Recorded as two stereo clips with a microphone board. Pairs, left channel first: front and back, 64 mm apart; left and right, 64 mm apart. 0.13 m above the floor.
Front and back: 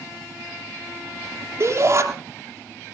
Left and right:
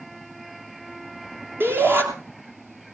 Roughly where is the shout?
Behind right.